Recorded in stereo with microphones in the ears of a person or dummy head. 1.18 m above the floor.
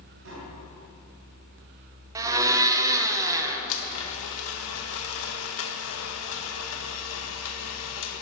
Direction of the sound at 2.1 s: 20° right (ahead or behind).